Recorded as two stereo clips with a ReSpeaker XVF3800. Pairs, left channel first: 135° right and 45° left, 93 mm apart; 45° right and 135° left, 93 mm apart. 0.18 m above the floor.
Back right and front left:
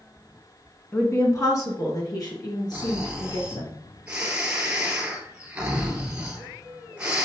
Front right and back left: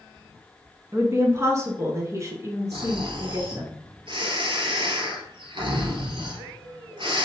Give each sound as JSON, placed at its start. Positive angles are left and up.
{"t": 0.9, "sound": "a woman speaking", "azimuth_deg": 180, "distance_m": 1.9}
{"t": 2.7, "sound": "snoring", "azimuth_deg": 125, "distance_m": 2.0}